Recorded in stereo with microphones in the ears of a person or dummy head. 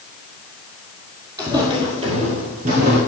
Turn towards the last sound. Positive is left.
turn(degrees=-50)  # may be behind; listen again after turning